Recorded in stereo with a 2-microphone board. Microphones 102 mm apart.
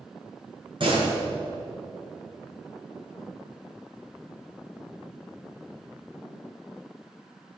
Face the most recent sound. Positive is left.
turn(degrees=-55)  # may be behind; listen again after turning